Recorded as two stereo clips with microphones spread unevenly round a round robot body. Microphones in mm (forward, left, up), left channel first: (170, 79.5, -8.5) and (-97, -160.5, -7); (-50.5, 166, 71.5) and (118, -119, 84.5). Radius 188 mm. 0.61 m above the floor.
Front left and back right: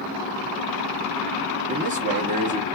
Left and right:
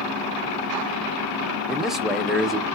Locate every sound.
1.7 s a man speaking: 150° right, 0.6 m